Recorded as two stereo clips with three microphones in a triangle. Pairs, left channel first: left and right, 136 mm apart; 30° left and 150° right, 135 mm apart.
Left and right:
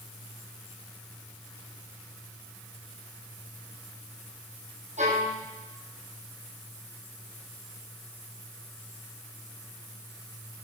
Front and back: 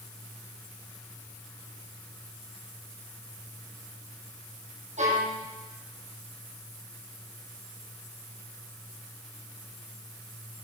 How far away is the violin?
About 4.5 m.